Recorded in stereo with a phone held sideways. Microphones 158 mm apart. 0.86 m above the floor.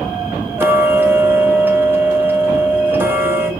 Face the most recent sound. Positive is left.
turn(degrees=-15)  # may be behind; listen again after turning